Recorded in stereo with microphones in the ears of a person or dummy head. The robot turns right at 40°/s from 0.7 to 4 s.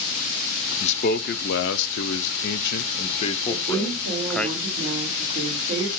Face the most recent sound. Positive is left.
turn(degrees=-45)  # may be behind; listen again after turning